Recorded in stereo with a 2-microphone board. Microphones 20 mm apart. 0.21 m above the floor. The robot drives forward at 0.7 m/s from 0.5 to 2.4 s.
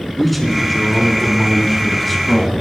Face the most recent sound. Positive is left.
turn(degrees=10)  # may be behind; listen again after turning